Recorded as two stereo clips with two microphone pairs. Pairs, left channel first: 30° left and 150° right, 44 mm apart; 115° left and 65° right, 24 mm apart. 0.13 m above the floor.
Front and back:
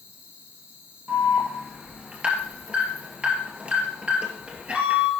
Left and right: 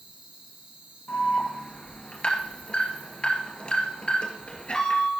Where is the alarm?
150° left, 2 m.